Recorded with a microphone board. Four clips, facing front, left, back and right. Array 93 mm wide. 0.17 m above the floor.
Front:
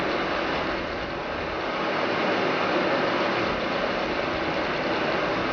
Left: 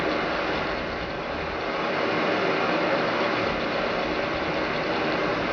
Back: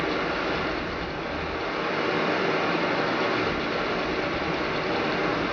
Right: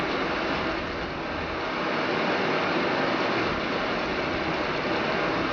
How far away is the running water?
About 1.8 m.